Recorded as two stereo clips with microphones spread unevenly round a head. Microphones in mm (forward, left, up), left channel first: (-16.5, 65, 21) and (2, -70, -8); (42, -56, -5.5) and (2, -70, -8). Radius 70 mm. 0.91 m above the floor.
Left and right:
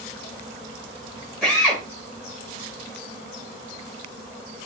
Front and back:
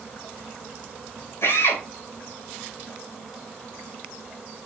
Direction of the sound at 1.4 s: 15° left.